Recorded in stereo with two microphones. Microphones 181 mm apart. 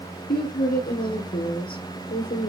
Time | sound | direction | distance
0.3 | a woman speaking | 65° left (ahead or behind) | 2.5 m